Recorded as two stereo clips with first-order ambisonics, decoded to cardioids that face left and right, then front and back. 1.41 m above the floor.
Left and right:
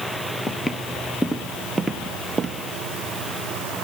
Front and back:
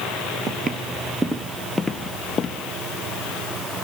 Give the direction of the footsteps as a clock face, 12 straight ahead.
7 o'clock.